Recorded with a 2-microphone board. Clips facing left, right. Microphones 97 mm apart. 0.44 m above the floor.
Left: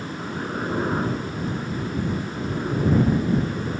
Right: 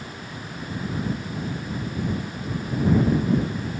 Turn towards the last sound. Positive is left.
turn(degrees=65)  # may be behind; listen again after turning